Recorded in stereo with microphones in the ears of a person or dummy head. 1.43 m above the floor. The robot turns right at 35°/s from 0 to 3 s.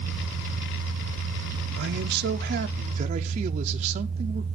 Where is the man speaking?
85° right, 0.6 m; by 4.5 s 40° right, 0.6 m.